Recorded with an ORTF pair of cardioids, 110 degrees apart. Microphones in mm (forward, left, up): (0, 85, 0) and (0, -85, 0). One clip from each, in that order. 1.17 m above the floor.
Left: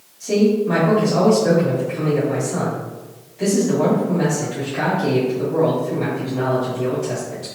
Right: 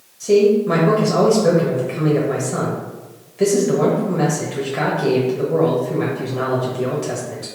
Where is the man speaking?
40° right, 1.2 m.